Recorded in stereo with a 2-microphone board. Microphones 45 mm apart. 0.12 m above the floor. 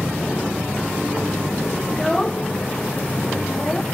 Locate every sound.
0.0 s an aircraft: 25° left (ahead or behind)
1.9 s a child speaking: 10° left (ahead or behind)